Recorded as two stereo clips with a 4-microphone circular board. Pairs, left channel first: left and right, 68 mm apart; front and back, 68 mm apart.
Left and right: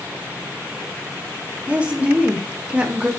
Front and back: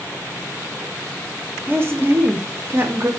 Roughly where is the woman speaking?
Behind right.